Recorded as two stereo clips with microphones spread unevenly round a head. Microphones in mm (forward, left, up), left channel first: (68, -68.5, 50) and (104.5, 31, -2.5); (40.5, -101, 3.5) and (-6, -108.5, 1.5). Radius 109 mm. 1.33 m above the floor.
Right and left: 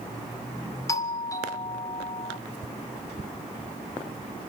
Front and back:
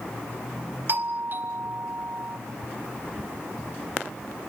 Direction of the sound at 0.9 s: 165° left.